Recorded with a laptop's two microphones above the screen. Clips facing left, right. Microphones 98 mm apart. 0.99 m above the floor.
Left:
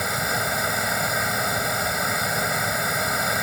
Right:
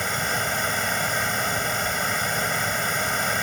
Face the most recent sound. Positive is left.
turn(degrees=5)  # may be behind; listen again after turning